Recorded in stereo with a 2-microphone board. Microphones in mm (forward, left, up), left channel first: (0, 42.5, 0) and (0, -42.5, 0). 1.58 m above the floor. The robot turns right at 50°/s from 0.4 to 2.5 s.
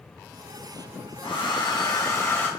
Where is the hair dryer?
95° left, 1.4 m; by 2.5 s 160° left, 1.4 m.